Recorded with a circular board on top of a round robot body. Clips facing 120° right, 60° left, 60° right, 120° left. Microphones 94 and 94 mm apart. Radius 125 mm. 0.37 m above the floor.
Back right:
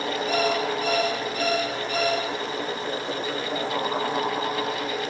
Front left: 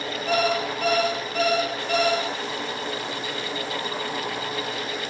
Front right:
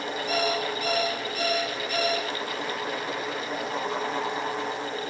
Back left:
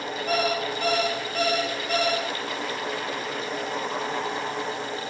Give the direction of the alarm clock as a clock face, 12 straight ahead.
10 o'clock.